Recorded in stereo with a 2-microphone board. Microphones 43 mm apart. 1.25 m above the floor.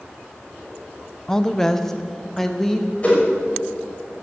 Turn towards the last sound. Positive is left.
turn(degrees=30)  # may be behind; listen again after turning